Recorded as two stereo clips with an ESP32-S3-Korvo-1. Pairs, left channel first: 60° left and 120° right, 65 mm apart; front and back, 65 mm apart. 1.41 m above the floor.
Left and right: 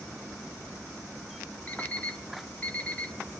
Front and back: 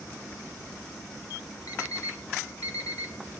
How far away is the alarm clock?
About 1.7 m.